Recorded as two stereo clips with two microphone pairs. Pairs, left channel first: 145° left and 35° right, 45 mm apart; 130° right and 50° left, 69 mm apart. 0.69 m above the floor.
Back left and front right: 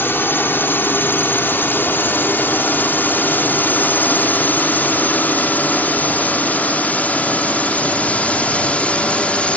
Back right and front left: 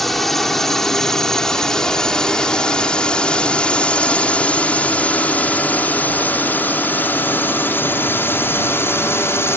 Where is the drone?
140° left; by 9.6 s 165° right.